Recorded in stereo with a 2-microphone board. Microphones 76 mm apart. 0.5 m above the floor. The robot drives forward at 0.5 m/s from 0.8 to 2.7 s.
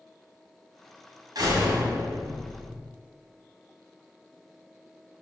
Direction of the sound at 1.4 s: 55° right (ahead or behind).